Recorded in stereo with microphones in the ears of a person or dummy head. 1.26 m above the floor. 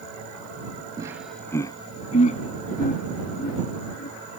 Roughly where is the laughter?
Right.